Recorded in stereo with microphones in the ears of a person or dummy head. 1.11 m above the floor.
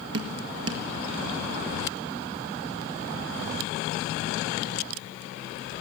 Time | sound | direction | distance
0.1 | dripping | 70° right (ahead or behind) | 1.7 m